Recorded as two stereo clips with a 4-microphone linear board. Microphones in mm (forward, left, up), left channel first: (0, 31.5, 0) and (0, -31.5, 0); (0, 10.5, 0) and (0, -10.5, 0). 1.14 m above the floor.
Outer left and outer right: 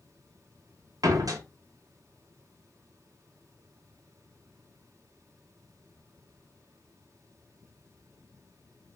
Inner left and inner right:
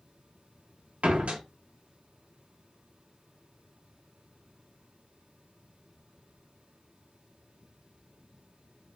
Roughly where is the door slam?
Right.